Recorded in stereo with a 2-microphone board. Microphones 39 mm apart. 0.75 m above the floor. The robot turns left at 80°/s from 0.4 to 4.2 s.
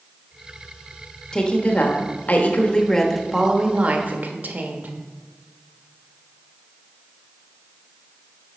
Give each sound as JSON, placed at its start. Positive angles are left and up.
{"t": 1.3, "sound": "a woman speaking", "azimuth_deg": 150, "distance_m": 1.1}